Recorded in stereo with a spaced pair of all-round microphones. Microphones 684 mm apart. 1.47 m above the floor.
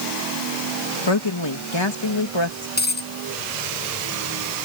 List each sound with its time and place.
1.1 s a woman speaking: 40° left (ahead or behind)
2.8 s a dropped coin: 15° left (ahead or behind)